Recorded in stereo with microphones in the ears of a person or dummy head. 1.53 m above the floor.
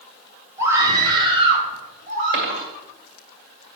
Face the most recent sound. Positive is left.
turn(degrees=-60)  # may be behind; listen again after turning